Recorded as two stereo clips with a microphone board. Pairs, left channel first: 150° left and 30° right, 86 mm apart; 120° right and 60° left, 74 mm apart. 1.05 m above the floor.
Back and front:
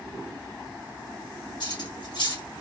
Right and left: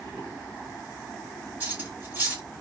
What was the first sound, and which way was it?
Cutlery clinking, 125° left.